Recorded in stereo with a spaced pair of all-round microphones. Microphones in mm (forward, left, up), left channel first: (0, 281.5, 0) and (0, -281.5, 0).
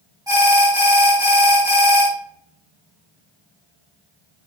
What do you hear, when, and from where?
0.3 s an alarm: 5° right (ahead or behind), 5 m